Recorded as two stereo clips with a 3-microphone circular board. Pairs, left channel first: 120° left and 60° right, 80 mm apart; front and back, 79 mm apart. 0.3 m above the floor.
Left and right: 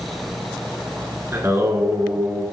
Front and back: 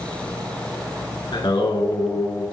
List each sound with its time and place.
1.3 s singing: 5° right, 3 m